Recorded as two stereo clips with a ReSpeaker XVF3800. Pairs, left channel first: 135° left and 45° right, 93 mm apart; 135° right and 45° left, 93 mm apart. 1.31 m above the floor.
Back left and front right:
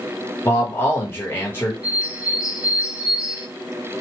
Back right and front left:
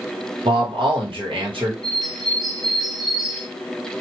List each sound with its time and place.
0.5 s a man speaking: 70° left, 1.2 m
1.8 s a bird: 30° left, 0.6 m